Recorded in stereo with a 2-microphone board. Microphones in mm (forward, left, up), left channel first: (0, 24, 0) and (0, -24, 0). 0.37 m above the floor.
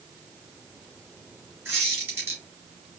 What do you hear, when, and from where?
1.6 s a squeak: 55° right (ahead or behind), 3 m